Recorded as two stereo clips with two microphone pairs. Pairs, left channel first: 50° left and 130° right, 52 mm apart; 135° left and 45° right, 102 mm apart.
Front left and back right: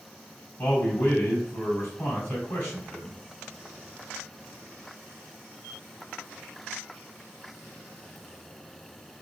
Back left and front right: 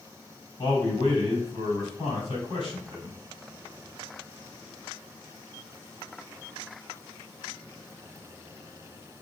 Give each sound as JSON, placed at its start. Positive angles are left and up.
{"t": 0.6, "sound": "a man speaking", "azimuth_deg": 100, "distance_m": 2.5}